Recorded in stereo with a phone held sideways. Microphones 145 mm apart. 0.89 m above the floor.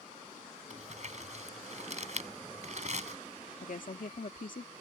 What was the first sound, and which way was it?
Crumpling, 55° right (ahead or behind).